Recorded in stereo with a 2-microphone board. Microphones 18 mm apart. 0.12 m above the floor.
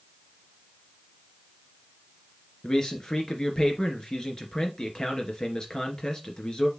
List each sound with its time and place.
2.6 s a man speaking: 45° left (ahead or behind), 2 m